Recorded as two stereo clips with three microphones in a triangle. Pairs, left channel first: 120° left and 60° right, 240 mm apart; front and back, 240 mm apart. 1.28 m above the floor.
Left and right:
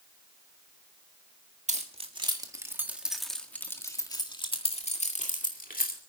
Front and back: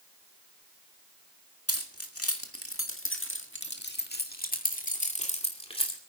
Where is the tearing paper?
No tearing paper in this recording.